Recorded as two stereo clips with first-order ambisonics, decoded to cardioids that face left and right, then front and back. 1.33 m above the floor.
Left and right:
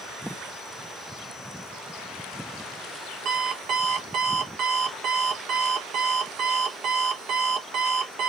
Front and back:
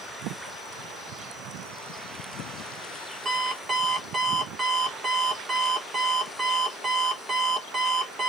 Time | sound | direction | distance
3.2 | an alarm clock | 115° right | 0.7 m